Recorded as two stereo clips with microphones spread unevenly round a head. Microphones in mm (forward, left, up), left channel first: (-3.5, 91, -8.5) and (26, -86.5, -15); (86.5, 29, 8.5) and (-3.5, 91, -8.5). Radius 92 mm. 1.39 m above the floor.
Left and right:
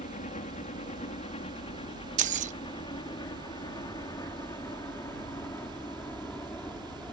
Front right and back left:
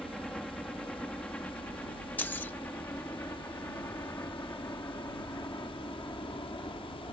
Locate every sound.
0.0 s a helicopter: 50° left; by 7.1 s 20° left
2.2 s keys jangling: 90° right